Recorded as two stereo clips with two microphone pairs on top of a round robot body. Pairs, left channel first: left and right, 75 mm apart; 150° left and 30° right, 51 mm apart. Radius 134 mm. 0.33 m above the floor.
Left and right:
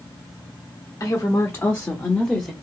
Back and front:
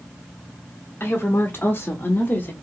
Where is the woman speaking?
125° left, 1.5 m; by 2.5 s straight behind, 1.2 m.